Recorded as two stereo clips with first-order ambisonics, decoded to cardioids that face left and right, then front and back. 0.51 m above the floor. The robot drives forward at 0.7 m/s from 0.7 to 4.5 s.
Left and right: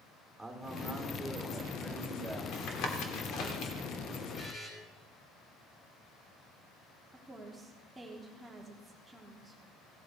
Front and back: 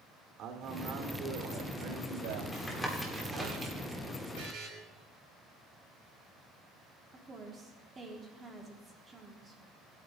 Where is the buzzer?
150° left, 5.5 m.